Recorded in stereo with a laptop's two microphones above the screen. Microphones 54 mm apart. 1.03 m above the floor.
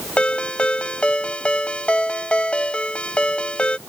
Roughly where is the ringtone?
Left.